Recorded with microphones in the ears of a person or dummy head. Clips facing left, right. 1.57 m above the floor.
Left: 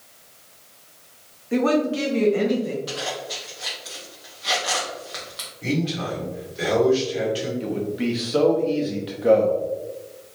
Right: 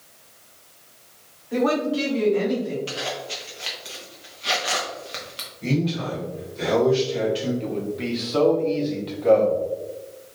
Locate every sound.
1.5 s a woman speaking: 30° left (ahead or behind), 0.9 m; by 2.8 s 40° left (ahead or behind), 1.5 m
2.9 s a zipper: 40° right (ahead or behind), 0.7 m
5.6 s a man speaking: 10° left (ahead or behind), 1.8 m
7.6 s a man speaking: 10° left (ahead or behind), 0.6 m